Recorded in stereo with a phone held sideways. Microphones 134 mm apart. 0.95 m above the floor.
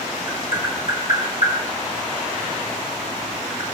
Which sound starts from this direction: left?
Tapping, at 0.3 s.